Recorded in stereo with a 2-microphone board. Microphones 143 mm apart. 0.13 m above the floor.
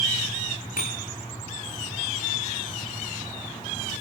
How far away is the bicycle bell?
About 8.5 m.